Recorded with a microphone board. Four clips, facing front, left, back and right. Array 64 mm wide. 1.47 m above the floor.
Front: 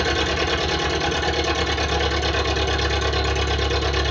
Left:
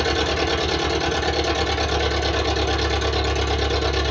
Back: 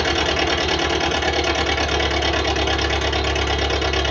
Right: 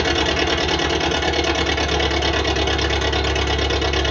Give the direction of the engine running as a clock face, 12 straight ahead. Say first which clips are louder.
Right 2 dB, back 2 dB; 5 o'clock.